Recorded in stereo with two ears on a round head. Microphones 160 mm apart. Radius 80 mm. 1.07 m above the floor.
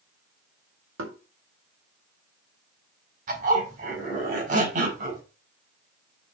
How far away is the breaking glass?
No breaking glass in this recording.